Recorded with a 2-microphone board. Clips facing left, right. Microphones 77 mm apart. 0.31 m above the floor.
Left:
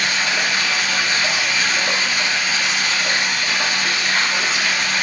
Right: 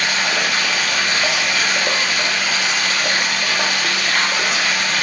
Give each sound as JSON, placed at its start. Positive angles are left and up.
{"t": 0.0, "sound": "running water", "side_deg": -70, "distance_m": 5.5}